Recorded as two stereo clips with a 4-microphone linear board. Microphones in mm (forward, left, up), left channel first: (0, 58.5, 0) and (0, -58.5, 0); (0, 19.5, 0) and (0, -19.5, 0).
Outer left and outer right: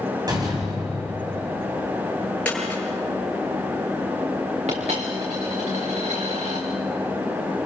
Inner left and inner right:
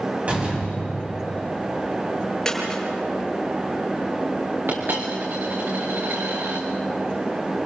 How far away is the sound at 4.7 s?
About 4.5 m.